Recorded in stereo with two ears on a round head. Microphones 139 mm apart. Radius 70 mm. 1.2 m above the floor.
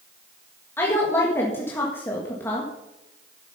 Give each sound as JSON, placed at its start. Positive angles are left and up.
{"t": 0.8, "sound": "a woman speaking", "side_deg": 15, "distance_m": 1.7}